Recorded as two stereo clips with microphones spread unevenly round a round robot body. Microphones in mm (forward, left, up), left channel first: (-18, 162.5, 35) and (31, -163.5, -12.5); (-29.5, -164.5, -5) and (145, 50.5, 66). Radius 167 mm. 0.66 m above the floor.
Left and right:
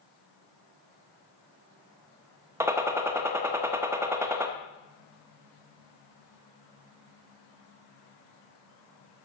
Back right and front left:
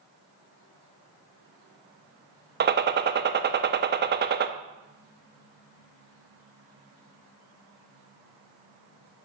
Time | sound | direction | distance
2.6 | a gunshot | 10° right | 0.9 m